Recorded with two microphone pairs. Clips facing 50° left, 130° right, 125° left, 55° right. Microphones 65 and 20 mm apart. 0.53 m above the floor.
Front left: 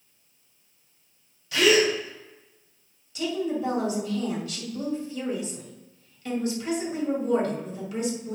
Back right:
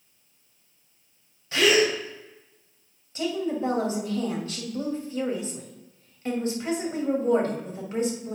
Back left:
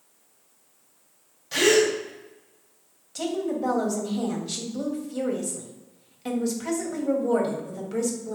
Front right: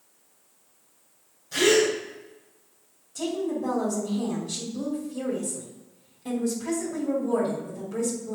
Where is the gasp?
170° left, 2.5 m.